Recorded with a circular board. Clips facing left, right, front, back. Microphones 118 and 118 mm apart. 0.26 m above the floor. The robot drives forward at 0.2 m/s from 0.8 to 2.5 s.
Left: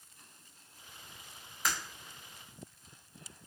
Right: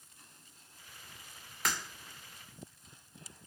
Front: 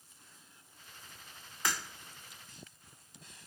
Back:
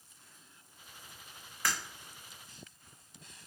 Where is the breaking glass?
70° right, 2.5 m.